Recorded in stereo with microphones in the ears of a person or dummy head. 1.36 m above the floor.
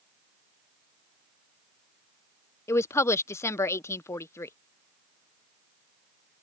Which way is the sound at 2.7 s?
15° left (ahead or behind).